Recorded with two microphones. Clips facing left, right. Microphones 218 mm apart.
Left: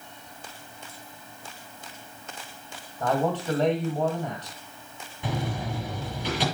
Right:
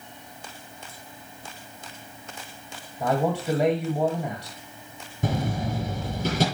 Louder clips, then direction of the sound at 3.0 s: Right 1 dB; 10° right (ahead or behind).